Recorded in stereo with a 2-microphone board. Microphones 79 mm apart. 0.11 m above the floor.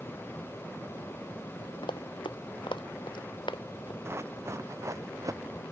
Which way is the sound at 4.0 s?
30° right (ahead or behind).